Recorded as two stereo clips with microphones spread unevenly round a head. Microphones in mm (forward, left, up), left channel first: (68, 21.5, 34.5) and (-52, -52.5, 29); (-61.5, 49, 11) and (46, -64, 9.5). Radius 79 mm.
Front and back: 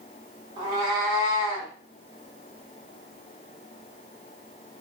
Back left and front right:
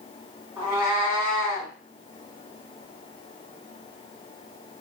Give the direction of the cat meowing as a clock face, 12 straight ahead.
4 o'clock.